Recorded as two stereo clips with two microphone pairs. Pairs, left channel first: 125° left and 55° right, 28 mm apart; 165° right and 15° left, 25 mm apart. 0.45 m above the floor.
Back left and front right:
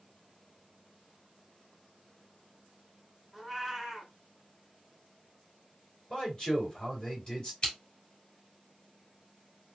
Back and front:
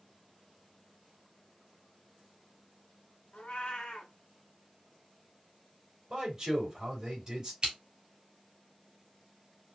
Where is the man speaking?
75° left, 2.5 m.